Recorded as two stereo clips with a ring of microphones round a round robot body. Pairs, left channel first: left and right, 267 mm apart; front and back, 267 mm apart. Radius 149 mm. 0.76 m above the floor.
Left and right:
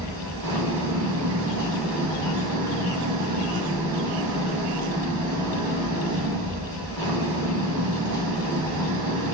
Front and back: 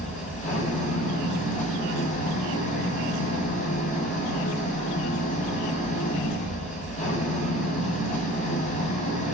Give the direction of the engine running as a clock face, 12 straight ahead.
2 o'clock.